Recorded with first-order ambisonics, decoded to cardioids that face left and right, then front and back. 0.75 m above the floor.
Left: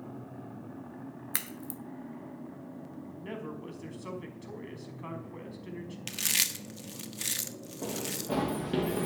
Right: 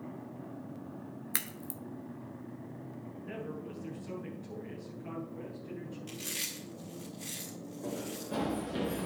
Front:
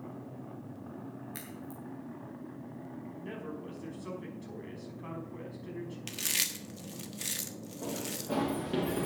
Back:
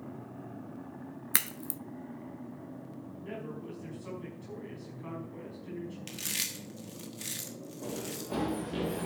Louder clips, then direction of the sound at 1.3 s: Even, back 10 dB; straight behind.